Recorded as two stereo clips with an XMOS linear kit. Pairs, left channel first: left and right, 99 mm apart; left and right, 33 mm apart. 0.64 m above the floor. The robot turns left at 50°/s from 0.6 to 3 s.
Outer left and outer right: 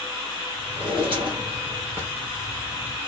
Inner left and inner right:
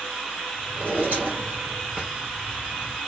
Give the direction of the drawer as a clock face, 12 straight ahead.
3 o'clock.